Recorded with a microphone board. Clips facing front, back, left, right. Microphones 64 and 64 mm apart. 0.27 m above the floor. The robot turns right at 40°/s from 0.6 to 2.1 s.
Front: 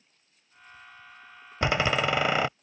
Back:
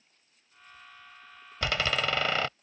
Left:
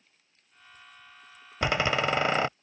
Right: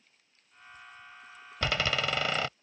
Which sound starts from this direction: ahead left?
A door slam, at 1.6 s.